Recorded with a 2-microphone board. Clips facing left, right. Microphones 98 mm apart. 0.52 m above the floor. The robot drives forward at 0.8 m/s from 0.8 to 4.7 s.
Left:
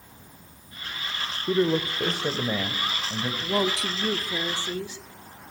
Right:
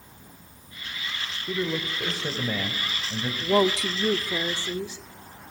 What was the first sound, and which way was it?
A man speaking, 35° left (ahead or behind).